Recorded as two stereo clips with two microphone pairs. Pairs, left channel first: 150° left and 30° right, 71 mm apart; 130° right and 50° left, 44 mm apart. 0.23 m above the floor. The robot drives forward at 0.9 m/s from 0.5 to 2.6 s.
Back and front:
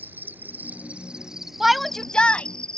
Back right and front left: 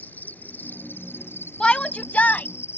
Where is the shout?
105° right; by 2.5 s 155° right.